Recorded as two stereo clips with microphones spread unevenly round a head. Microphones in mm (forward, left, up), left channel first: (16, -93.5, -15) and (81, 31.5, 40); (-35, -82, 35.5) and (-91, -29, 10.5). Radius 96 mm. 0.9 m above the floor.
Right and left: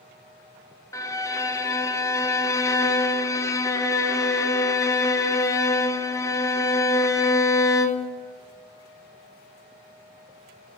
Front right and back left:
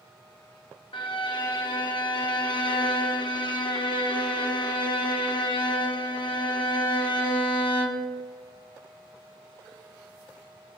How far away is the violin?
About 0.8 m.